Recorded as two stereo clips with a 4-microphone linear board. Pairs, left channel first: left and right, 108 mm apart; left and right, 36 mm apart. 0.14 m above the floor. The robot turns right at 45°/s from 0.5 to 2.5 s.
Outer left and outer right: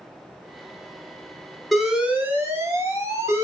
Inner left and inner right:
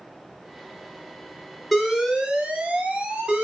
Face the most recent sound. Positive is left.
turn(degrees=-145)